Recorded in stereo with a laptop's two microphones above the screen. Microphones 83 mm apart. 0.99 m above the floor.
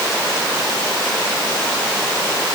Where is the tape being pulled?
I don't hear tape being pulled.